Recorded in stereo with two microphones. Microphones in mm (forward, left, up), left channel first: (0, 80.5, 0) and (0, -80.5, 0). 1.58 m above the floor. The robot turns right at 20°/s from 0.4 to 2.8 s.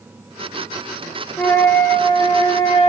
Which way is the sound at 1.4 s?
15° left (ahead or behind).